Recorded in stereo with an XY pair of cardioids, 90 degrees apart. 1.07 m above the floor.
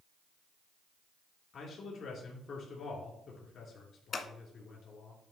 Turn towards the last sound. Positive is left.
turn(degrees=50)